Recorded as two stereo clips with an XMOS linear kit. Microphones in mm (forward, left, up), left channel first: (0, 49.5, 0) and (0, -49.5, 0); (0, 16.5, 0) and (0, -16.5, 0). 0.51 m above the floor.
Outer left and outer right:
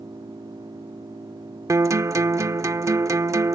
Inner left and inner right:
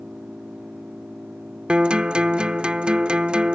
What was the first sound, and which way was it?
An engine running, 45° right (ahead or behind).